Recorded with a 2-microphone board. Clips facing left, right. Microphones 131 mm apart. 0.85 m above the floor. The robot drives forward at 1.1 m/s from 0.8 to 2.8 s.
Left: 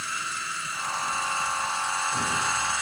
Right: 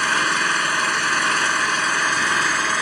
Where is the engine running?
90° right; by 2.8 s 70° right (ahead or behind).